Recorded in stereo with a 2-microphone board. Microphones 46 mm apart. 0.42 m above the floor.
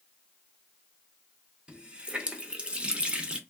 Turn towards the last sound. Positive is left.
turn(degrees=-25)  # may be behind; listen again after turning